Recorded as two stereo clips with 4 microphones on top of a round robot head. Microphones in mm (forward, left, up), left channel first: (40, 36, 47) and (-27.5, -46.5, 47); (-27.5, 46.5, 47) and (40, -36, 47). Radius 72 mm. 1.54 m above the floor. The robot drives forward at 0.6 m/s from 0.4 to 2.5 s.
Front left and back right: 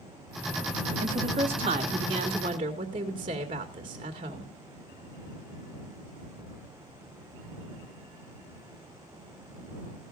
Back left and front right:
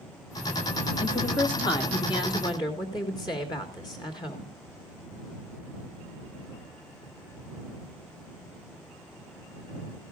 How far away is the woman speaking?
About 1.2 m.